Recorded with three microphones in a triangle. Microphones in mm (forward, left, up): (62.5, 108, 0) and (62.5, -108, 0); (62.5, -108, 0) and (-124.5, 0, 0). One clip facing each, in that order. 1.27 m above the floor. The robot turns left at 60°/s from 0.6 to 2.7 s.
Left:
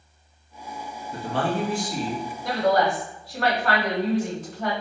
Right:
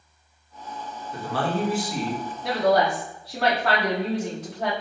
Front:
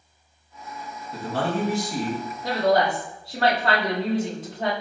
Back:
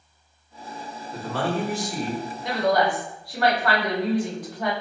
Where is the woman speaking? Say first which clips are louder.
Right 1 dB, front 1 dB; 80° right, 1.4 m; by 4.7 s 95° right, 1.4 m.